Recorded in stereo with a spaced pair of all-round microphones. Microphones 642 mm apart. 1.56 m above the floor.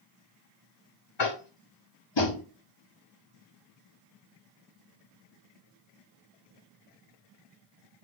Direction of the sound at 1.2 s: 45° left (ahead or behind).